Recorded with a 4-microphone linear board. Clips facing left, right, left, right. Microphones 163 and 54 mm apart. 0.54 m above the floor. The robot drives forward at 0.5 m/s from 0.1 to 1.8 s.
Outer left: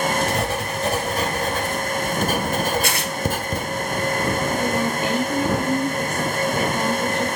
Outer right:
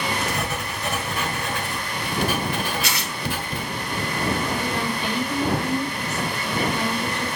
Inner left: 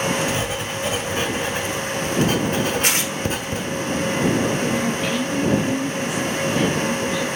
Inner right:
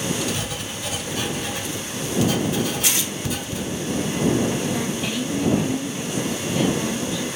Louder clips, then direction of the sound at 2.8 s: Outer left 4 dB, inner left 4 dB; 45° left (ahead or behind).